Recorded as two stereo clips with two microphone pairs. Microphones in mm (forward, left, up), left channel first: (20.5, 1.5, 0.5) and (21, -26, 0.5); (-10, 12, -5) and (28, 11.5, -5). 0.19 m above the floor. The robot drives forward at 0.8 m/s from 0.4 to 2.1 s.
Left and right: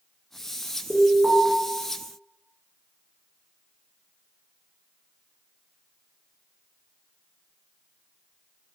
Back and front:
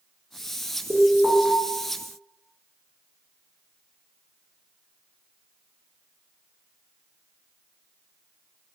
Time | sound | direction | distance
0.9 | an alarm | 35° right | 2.5 m